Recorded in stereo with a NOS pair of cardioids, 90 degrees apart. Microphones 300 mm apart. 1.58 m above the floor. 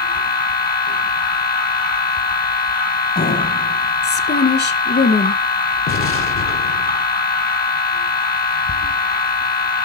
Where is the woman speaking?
35° left, 2 m.